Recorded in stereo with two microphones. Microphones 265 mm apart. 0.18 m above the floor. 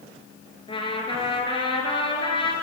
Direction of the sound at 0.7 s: 20° left (ahead or behind).